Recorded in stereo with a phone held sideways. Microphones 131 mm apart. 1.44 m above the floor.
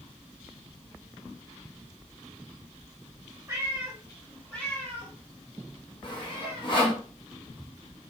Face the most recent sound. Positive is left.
turn(degrees=40)  # may be behind; listen again after turning